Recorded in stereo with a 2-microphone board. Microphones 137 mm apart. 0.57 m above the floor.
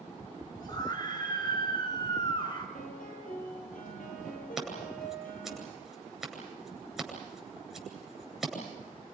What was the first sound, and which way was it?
A scream, 30° left (ahead or behind).